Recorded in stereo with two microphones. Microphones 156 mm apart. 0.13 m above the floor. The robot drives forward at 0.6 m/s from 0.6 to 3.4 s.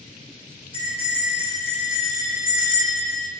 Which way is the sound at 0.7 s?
75° right (ahead or behind).